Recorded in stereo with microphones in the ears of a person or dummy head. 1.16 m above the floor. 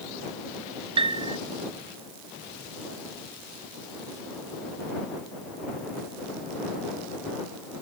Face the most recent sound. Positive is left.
turn(degrees=-30)  # may be behind; listen again after turning